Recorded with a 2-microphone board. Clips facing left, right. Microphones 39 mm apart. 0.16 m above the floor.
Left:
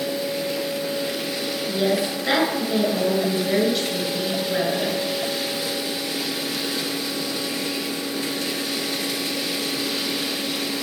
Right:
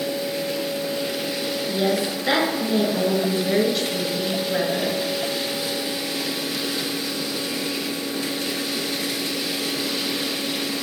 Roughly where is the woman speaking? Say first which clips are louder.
Left 1 dB; centre.